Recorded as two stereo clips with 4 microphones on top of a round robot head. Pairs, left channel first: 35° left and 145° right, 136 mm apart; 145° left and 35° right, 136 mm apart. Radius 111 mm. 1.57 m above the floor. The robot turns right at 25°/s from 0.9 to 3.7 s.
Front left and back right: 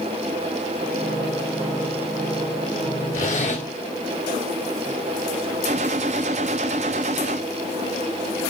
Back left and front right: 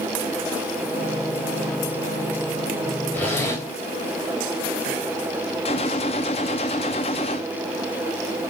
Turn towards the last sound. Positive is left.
turn(degrees=-175)